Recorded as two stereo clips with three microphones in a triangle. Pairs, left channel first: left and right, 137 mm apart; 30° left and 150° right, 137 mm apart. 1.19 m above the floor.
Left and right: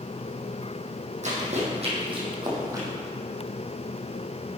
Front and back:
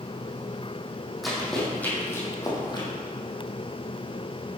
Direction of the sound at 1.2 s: 60° right.